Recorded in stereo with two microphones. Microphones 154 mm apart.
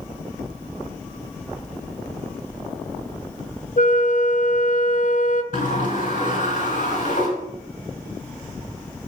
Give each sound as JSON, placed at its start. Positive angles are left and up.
{"t": 3.8, "sound": "a flute", "side_deg": 55, "distance_m": 0.7}
{"t": 5.5, "sound": "a sliding door", "side_deg": 50, "distance_m": 4.0}